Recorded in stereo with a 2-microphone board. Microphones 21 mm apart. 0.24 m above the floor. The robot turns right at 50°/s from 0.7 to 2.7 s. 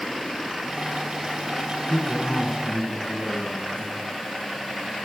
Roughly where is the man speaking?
Ahead.